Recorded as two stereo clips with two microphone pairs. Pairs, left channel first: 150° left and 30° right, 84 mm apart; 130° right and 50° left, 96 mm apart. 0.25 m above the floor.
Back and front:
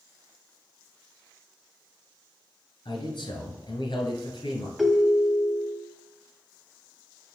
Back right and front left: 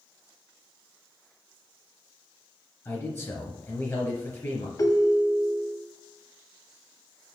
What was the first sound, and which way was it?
A man speaking, 170° left.